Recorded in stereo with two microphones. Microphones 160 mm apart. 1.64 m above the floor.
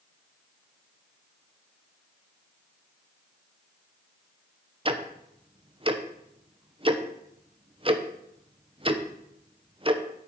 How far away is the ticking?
About 0.9 m.